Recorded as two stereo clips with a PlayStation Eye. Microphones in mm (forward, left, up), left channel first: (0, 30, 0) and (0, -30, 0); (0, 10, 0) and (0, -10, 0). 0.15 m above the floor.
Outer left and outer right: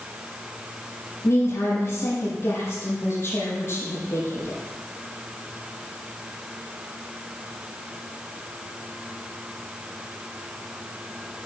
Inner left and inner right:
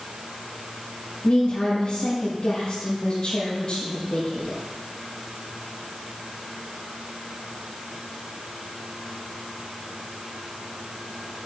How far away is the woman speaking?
About 5 m.